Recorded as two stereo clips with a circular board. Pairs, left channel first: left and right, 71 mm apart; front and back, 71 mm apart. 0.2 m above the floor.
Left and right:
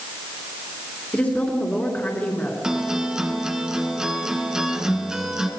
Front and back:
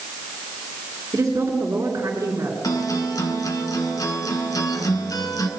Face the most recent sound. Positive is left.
turn(degrees=-10)